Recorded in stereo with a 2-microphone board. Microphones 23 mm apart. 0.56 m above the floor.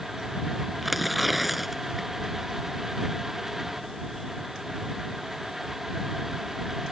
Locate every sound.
0.8 s tearing paper: 5° right (ahead or behind)